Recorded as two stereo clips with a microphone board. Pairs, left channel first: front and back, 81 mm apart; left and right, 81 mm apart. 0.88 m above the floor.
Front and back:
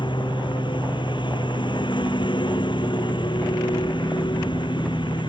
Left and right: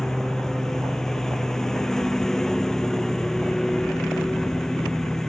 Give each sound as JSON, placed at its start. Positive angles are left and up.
{"t": 0.0, "sound": "a lawn mower", "azimuth_deg": 5}